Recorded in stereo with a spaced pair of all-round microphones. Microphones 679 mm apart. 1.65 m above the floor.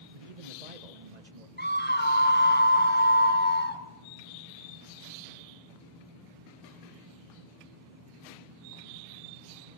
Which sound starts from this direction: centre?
A scream, at 1.6 s.